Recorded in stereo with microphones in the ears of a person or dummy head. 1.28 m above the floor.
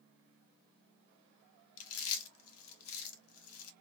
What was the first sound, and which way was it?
Chewing, 75° left (ahead or behind).